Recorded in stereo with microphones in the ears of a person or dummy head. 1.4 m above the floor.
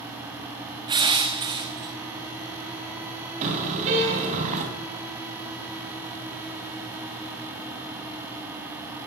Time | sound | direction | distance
0.9 | crushing | 15° right (ahead or behind) | 1.1 m
3.4 | a car horn | 40° right (ahead or behind) | 3.5 m